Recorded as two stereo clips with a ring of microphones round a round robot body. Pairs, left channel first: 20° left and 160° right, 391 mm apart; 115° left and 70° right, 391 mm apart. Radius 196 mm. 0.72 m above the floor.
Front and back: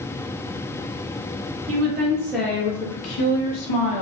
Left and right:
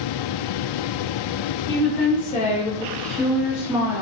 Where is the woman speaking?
160° left, 0.7 m; by 4.0 s 10° left, 1.0 m.